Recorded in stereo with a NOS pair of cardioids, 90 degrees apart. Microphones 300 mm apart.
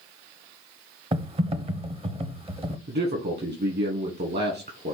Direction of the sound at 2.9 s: 35° right.